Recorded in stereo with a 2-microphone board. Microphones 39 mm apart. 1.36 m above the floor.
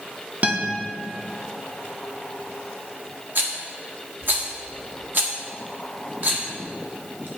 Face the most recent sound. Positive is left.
turn(degrees=-55)  # may be behind; listen again after turning